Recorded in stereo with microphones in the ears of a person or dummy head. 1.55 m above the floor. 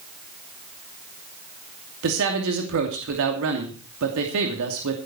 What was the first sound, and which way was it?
A man speaking, 70° right (ahead or behind).